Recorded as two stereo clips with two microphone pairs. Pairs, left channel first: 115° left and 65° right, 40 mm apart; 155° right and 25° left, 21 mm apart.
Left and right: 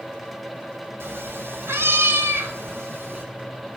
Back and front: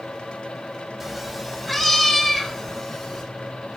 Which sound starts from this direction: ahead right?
A cat meowing, at 1.0 s.